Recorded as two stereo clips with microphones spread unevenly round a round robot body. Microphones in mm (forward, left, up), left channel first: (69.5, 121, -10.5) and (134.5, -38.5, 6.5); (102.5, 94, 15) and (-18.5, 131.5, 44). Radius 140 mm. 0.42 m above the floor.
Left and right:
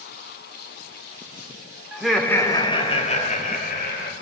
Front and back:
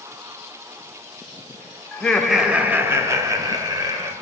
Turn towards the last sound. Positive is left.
turn(degrees=100)